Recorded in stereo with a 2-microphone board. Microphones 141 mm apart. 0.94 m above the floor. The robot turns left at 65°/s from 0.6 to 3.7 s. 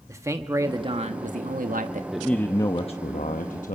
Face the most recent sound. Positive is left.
turn(degrees=80)